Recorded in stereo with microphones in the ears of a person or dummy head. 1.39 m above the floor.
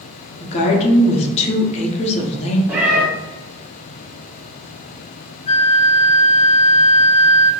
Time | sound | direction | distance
0.4 | a woman speaking | 30° left (ahead or behind) | 0.7 m
2.7 | a cat meowing | 5° right (ahead or behind) | 0.6 m
5.5 | a flute | 30° left (ahead or behind) | 0.5 m